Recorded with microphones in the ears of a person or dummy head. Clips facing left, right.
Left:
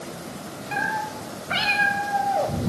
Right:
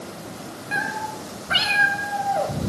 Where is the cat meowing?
15° right (ahead or behind), 3.5 m; by 2.7 s 5° left (ahead or behind), 2.5 m.